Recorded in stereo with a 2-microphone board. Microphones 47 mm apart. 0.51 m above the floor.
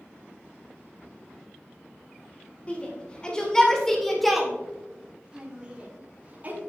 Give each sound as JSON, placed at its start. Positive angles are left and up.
{"t": 2.7, "sound": "a shout", "side_deg": 30, "distance_m": 2.5}